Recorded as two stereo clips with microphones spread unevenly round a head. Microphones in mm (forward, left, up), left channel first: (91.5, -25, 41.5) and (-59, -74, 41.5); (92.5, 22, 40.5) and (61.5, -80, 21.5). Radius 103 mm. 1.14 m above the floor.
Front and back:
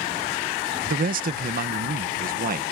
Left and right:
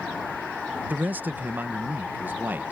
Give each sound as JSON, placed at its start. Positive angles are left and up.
{"t": 0.9, "sound": "a man speaking", "azimuth_deg": -175}